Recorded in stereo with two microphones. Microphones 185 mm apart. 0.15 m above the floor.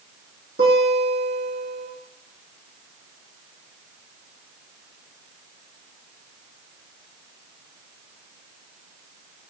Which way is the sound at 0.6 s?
60° right (ahead or behind).